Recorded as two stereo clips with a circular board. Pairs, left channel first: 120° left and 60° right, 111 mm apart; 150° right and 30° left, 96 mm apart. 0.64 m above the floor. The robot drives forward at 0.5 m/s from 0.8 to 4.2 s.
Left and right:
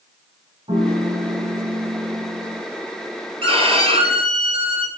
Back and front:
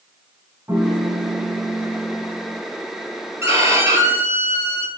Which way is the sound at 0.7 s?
35° right.